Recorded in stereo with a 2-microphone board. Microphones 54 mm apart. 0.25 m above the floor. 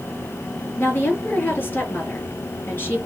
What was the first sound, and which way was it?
A woman speaking, 35° left (ahead or behind).